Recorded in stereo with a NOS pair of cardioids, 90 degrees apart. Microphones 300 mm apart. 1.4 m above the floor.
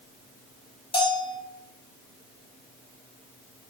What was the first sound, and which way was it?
A bell, 15° left.